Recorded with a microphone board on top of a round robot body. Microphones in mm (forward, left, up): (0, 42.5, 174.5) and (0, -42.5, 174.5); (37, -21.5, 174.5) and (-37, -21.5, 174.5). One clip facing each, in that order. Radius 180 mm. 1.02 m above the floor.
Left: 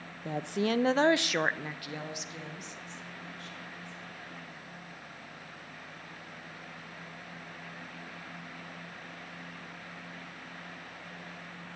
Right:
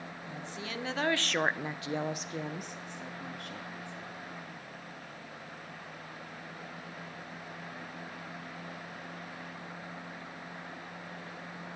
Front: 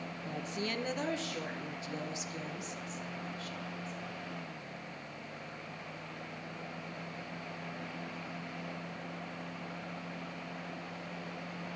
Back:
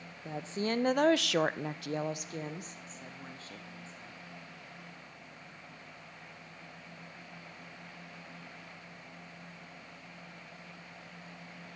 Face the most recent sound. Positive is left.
turn(degrees=-120)